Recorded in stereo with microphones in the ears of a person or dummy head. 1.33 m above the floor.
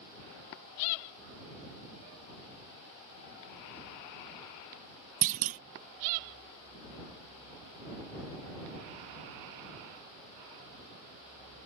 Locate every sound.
5.2 s a clunk: 40° right (ahead or behind)